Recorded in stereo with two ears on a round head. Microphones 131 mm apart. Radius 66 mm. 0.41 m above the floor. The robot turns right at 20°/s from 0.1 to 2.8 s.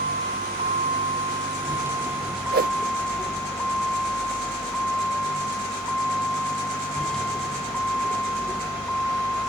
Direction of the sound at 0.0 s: 50° right.